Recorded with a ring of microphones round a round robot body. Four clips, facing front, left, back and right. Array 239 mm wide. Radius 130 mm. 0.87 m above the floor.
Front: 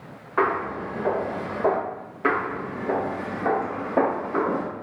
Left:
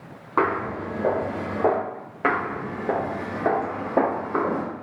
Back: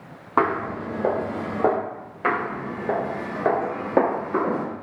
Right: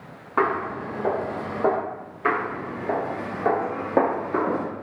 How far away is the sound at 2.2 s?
About 1.0 m.